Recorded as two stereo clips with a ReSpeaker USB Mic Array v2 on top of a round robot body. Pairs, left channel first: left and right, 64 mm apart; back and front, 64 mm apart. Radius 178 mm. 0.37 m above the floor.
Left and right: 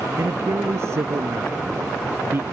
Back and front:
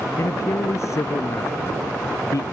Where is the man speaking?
135° right; by 2.4 s 145° right.